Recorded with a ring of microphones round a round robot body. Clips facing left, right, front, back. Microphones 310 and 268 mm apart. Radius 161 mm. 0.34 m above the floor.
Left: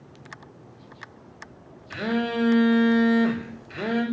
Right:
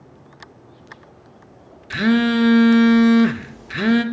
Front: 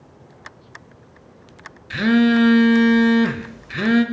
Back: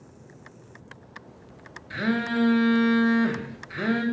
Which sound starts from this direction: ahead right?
A phone buzzing, at 1.9 s.